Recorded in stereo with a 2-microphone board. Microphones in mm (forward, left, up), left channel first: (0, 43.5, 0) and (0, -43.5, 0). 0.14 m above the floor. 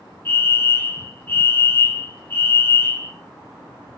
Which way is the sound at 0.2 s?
25° left (ahead or behind).